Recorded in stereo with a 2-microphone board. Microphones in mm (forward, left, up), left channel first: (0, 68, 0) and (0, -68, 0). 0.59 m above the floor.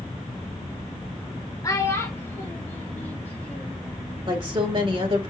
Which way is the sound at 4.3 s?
40° right (ahead or behind).